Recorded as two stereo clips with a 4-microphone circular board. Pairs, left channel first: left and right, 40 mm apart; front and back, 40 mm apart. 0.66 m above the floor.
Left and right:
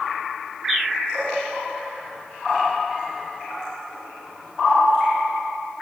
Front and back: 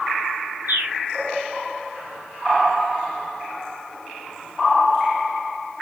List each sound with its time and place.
0.7 s a bird: 165° right, 3.5 m